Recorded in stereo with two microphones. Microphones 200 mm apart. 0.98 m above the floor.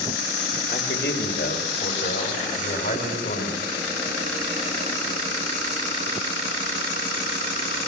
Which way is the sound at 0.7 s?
55° left (ahead or behind).